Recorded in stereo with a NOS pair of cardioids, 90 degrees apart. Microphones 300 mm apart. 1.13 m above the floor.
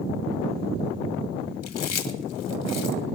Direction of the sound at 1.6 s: 60° left.